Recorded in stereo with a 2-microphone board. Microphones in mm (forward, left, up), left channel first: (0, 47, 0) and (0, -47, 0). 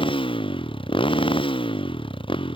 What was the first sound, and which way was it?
A motorcycle, 70° left (ahead or behind).